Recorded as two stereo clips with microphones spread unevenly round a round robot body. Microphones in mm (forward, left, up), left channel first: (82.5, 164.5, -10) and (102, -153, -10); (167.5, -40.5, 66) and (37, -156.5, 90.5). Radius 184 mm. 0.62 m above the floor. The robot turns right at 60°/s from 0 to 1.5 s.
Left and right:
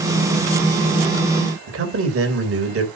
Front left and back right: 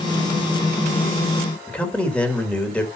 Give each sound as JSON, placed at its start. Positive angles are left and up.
{"t": 1.7, "sound": "a man speaking", "azimuth_deg": -40, "distance_m": 3.0}